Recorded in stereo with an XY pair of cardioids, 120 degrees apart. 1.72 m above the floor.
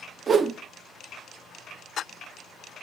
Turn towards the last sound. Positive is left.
turn(degrees=-35)